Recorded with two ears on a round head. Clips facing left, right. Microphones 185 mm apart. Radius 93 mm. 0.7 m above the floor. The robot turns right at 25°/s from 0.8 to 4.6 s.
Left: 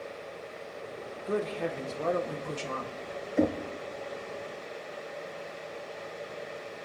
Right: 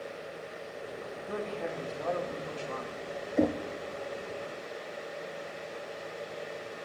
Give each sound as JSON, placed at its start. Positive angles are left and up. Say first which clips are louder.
{"t": 1.3, "sound": "a woman speaking", "louder": "left 5 dB", "azimuth_deg": 50, "distance_m": 2.0}
{"t": 3.4, "sound": "knocking", "louder": "left 1 dB", "side_deg": 5, "distance_m": 0.9}